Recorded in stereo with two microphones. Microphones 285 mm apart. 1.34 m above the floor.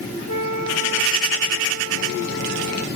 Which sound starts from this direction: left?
A flute, at 0.3 s.